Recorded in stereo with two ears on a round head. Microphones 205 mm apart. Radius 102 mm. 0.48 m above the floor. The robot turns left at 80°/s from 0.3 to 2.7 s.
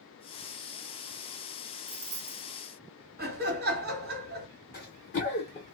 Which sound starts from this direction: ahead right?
Keys jangling, at 1.9 s.